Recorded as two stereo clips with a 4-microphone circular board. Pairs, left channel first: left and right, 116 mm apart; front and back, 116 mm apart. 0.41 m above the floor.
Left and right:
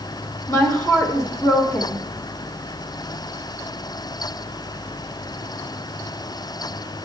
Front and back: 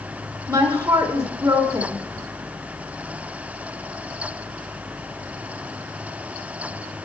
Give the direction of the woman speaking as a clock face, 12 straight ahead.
7 o'clock.